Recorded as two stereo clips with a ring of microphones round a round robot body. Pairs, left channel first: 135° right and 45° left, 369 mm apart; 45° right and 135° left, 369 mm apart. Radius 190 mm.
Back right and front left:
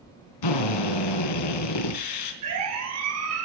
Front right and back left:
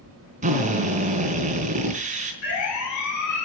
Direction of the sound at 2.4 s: Straight ahead.